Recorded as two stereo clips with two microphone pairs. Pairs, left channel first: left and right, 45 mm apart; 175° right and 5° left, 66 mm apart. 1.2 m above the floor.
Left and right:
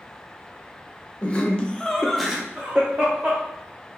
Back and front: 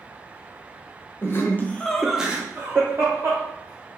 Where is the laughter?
150° left, 0.7 m; by 3.4 s 25° right, 0.9 m.